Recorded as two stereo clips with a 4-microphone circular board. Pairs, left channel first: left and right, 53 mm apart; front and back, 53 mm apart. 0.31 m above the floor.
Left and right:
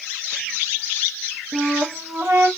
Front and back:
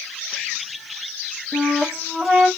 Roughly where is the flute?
Right.